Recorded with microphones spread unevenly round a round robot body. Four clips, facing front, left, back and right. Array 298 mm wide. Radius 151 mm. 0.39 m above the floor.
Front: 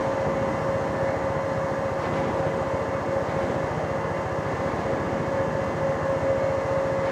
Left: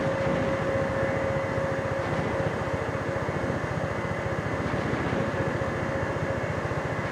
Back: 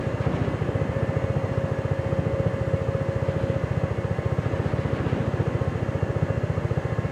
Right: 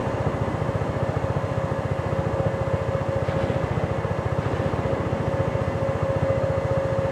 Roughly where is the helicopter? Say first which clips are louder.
Even, front 4 dB; behind right.